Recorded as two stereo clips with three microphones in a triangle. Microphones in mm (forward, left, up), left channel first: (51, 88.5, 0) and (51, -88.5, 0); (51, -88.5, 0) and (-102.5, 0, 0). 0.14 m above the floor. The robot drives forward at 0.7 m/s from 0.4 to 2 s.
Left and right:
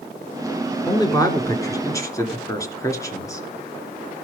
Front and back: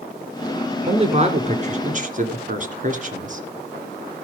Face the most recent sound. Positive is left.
turn(degrees=155)